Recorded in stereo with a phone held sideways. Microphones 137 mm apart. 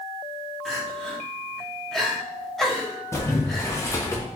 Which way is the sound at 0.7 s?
Centre (ahead or behind).